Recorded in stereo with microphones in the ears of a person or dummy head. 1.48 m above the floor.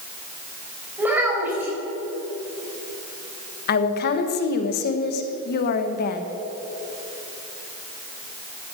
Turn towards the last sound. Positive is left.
turn(degrees=50)  # may be behind; listen again after turning